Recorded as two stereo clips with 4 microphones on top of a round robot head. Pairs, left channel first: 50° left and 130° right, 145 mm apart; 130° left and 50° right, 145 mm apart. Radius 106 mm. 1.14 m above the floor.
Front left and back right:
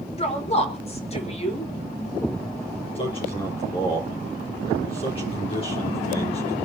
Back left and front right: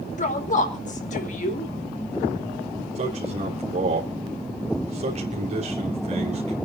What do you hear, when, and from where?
0.2 s a woman speaking: 95° left, 4 m
3.0 s a man speaking: 5° right, 3.5 m